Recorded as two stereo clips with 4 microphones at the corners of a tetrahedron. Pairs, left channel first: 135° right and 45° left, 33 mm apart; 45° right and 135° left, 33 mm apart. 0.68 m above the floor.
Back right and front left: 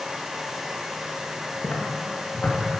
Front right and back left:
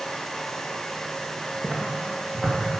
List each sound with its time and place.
1.6 s footsteps: 155° right, 2.5 m